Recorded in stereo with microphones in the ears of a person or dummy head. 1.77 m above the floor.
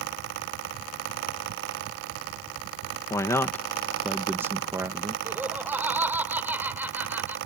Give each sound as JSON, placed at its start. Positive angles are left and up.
{"t": 3.1, "sound": "a man speaking", "side_deg": 15}
{"t": 5.2, "sound": "laughter", "side_deg": -10}